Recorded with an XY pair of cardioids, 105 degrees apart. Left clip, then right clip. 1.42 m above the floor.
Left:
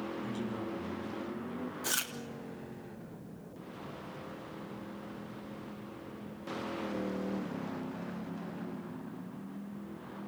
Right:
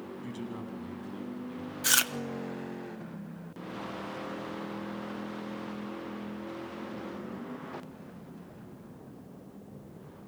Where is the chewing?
60° right, 1.2 m.